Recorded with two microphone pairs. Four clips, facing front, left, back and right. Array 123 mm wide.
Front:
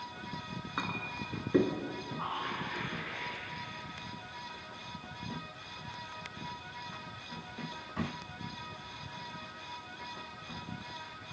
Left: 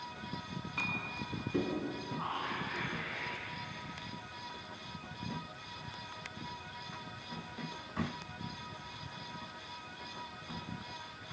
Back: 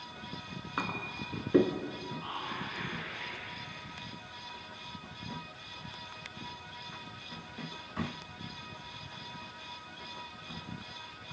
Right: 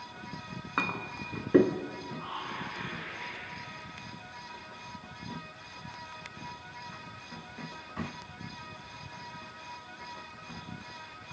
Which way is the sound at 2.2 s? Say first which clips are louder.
Left 2 dB, front 5 dB; 30° left.